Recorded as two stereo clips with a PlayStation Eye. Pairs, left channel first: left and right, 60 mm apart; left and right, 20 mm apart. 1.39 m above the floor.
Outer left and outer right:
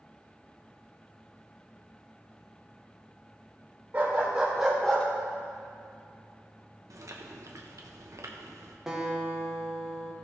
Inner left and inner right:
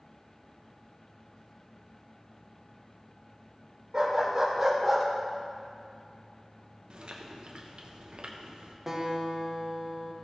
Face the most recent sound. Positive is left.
turn(degrees=-10)  # may be behind; listen again after turning